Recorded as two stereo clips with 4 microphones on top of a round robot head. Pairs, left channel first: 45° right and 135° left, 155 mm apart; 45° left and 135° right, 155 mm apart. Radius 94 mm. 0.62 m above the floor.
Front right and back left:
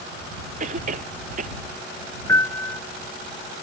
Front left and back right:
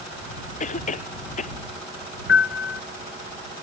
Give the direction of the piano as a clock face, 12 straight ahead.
11 o'clock.